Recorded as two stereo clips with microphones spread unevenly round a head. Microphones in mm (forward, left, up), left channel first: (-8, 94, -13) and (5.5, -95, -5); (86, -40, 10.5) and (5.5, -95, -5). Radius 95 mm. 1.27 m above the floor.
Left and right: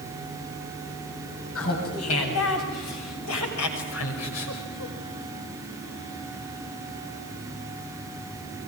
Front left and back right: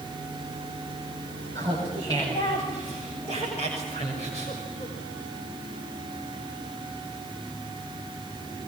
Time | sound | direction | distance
1.6 | laughter | 105° left | 9 m